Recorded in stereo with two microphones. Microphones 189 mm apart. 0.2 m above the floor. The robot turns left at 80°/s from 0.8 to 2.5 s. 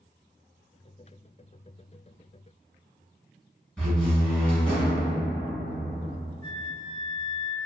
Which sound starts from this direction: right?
A flute, at 6.4 s.